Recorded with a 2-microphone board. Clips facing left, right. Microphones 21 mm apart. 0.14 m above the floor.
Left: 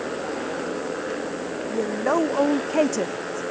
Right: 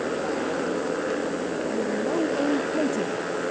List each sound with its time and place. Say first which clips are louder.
0.0 s a motorcycle: right 2 dB; centre (ahead or behind)
1.7 s a woman speaking: left 5 dB; 55° left (ahead or behind)